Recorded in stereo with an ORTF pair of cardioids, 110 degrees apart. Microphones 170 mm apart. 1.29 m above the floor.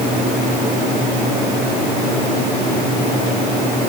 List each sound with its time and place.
Only background noise.